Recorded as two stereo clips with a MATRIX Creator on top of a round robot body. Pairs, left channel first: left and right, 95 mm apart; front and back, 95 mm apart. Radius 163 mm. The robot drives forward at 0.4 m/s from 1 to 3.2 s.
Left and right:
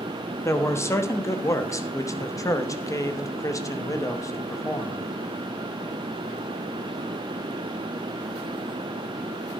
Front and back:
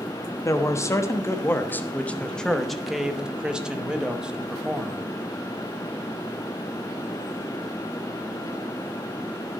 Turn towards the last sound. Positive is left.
turn(degrees=105)